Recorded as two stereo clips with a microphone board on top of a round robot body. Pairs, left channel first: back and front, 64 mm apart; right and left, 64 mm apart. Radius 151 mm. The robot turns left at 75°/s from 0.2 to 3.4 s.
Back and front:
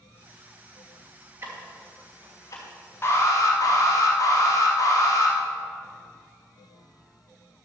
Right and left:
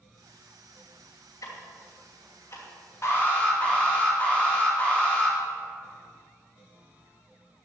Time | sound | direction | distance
1.4 | ticking | 50° right | 2.5 m
3.0 | an alarm | 130° right | 3 m